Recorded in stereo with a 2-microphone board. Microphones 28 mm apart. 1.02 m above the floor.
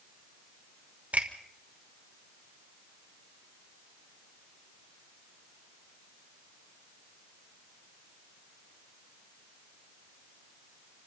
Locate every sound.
1.1 s a finger snap: 70° right (ahead or behind), 3.5 m